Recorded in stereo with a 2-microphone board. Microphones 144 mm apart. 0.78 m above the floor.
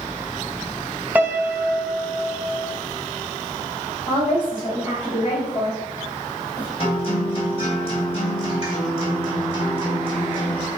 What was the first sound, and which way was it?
A piano, 10° right (ahead or behind).